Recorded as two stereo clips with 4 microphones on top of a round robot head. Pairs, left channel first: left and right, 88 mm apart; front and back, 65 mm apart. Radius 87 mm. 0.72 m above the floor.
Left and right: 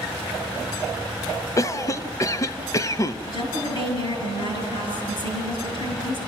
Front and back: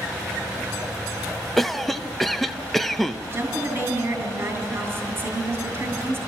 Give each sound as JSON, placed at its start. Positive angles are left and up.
{"t": 1.6, "sound": "a cough", "azimuth_deg": 85, "distance_m": 0.8}
{"t": 3.3, "sound": "a woman speaking", "azimuth_deg": 120, "distance_m": 7.0}